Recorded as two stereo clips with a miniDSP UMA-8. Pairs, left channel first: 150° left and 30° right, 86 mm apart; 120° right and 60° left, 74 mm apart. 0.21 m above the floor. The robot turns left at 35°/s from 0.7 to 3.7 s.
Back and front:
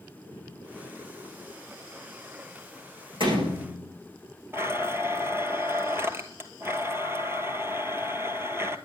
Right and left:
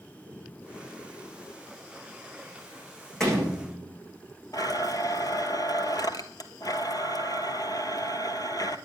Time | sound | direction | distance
3.2 | a door slam | 40° right | 9 m
4.5 | a blender | 90° right | 1.0 m